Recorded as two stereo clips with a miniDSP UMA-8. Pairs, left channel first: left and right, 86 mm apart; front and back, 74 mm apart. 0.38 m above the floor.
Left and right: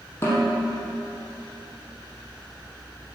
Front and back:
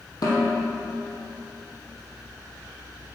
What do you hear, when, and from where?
0.2 s a snare drum: 30° left, 4 m